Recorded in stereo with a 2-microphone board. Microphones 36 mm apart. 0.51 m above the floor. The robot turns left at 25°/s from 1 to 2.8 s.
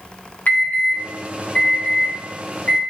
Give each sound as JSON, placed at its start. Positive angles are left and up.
{"t": 0.5, "sound": "an alarm", "side_deg": 55, "distance_m": 4.5}